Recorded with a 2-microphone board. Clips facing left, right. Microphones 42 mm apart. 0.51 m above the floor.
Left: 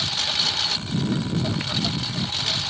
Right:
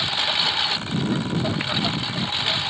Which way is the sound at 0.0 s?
20° right (ahead or behind).